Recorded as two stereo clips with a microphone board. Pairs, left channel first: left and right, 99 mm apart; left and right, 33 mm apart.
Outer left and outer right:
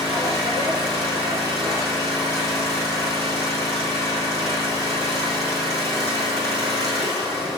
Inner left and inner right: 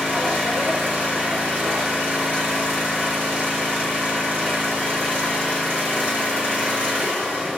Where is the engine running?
85° right, 4.5 m.